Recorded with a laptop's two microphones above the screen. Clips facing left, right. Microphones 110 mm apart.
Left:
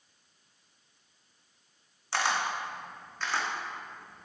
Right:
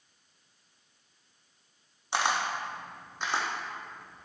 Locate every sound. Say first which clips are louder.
2.1 s a camera shutter: right 1 dB; 20° right (ahead or behind), 0.7 m